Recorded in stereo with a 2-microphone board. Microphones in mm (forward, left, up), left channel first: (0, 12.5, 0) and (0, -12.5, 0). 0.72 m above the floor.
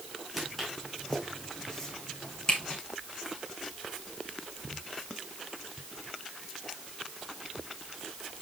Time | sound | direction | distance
0.4 | footsteps | centre (ahead or behind) | 2 m